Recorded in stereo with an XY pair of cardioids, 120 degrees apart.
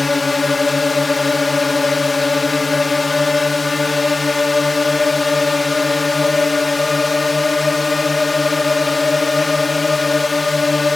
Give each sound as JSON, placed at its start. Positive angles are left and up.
{"t": 0.0, "sound": "a drone", "azimuth_deg": 25}